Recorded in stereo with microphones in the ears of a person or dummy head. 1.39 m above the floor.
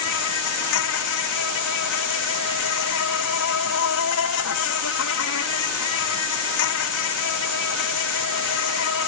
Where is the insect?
70° left (ahead or behind).